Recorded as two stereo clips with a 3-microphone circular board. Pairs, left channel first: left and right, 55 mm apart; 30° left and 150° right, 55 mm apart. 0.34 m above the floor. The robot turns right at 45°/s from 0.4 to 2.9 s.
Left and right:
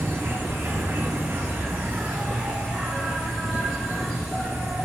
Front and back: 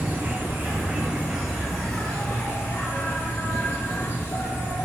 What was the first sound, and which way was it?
An insect, 120° right.